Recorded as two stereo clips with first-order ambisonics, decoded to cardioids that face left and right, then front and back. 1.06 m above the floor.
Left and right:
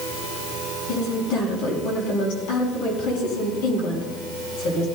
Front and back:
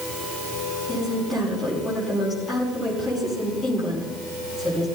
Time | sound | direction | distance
0.9 | a woman speaking | 80° left | 7.5 m